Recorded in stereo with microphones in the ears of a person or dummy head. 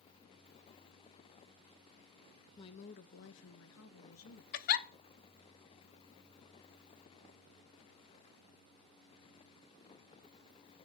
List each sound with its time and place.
2.6 s a woman speaking: 20° left (ahead or behind), 0.5 m; by 4.4 s 70° left (ahead or behind), 1.3 m
4.5 s a giggle: 45° left (ahead or behind), 0.5 m